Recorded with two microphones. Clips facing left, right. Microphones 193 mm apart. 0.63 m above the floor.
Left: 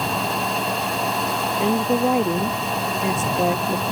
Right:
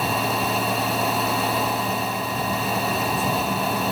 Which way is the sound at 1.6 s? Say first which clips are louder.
Left 7 dB; 85° left.